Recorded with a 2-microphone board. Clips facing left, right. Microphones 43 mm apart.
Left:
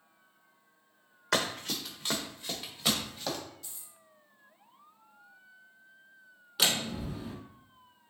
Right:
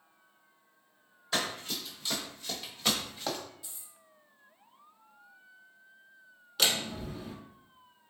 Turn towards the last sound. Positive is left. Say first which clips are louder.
# even
turn(degrees=5)  # may be behind; listen again after turning